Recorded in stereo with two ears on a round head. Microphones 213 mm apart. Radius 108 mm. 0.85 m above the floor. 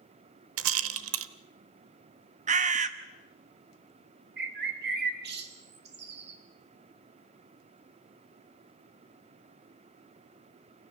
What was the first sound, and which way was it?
A rattle, 60° right (ahead or behind).